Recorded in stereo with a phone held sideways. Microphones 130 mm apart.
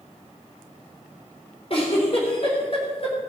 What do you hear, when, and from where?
1.7 s a giggle: 45° left (ahead or behind), 4 m